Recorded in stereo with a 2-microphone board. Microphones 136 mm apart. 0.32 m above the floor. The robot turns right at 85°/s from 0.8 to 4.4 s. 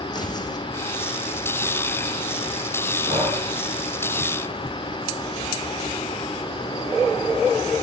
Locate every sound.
0.1 s tearing paper: 30° left (ahead or behind), 2.5 m
3.0 s breathing: 55° right, 5 m; by 3.4 s 25° right, 5 m